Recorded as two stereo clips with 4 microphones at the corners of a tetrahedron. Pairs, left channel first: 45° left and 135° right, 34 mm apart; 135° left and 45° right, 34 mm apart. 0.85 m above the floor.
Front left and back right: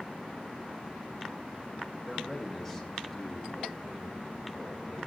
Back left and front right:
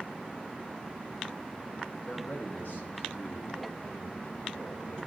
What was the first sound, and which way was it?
A man speaking, 135° left.